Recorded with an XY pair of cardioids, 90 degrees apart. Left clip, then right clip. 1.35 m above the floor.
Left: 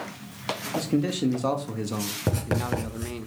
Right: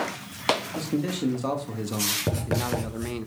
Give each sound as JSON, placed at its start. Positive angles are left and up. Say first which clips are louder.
{"t": 0.8, "sound": "a man speaking", "louder": "left 2 dB", "azimuth_deg": 30, "distance_m": 2.0}
{"t": 2.3, "sound": "writing", "louder": "even", "azimuth_deg": 25, "distance_m": 4.0}